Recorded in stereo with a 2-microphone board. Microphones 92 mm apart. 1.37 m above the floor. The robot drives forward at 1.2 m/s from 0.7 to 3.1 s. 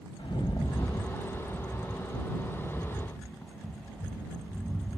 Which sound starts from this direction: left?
A rattle, at 0.2 s.